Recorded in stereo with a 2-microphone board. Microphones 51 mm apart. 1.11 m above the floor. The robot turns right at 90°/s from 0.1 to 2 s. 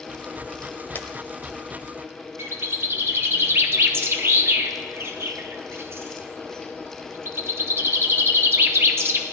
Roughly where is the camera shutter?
Left.